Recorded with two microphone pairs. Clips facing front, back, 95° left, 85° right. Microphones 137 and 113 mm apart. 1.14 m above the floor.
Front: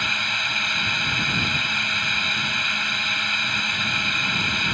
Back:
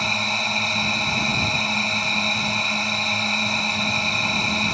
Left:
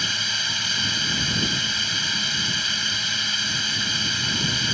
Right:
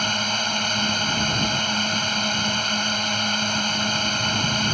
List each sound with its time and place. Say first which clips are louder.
0.0 s a drone: back 5 dB, right 7 dB; 125° right